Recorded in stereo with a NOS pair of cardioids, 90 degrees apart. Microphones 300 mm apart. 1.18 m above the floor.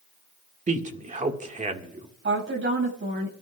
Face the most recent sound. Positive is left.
turn(degrees=-40)